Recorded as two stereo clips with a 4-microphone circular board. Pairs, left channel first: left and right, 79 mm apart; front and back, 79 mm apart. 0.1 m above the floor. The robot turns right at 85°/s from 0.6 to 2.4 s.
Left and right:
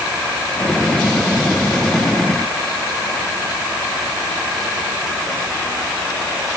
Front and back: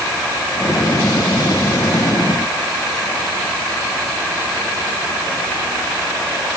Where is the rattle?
No rattle in this recording.